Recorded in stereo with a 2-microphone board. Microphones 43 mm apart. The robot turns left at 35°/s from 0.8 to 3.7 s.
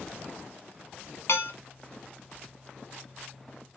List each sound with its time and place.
1.3 s dishes clattering: 65° left (ahead or behind), 1.3 m; by 1.5 s 60° left (ahead or behind), 1.3 m